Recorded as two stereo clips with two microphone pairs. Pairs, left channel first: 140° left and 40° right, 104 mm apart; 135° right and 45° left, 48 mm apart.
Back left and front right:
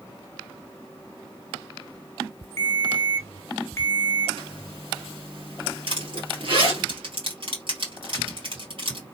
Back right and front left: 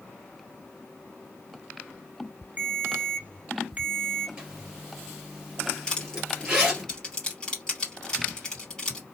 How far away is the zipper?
About 2.5 m.